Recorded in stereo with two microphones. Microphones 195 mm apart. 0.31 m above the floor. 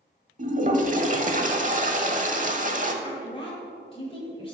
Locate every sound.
0.4 s a toilet flushing: 40° right (ahead or behind), 1.0 m
3.0 s a woman speaking: 30° left (ahead or behind), 1.5 m